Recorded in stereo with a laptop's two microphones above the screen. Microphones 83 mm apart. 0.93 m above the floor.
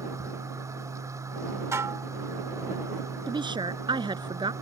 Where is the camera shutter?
No camera shutter in this recording.